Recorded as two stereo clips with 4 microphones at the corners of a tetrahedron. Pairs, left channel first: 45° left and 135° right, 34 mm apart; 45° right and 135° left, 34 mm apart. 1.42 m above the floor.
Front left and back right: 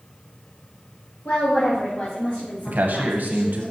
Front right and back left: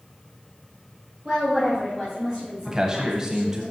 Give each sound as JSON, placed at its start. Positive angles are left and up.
{"t": 1.2, "sound": "a woman speaking", "azimuth_deg": 65, "distance_m": 1.5}
{"t": 2.7, "sound": "a man speaking", "azimuth_deg": -155, "distance_m": 0.9}